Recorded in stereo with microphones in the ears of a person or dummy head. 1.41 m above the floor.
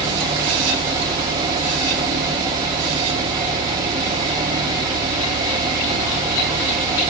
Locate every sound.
0.0 s a fan: 25° right (ahead or behind), 1.1 m